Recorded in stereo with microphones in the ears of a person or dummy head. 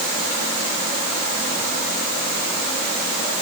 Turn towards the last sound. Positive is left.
No sound to turn to.